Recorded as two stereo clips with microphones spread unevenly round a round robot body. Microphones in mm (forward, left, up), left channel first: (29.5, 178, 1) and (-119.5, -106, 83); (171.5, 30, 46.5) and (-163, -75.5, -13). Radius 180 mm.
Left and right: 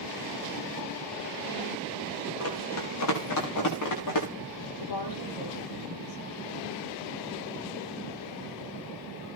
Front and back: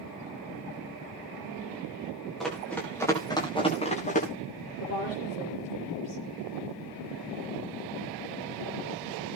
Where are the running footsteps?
105° left, 8 m; by 4.3 s 85° left, 7.5 m.